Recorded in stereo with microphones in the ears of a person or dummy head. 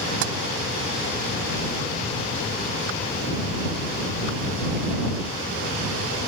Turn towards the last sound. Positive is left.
turn(degrees=-70)  # may be behind; listen again after turning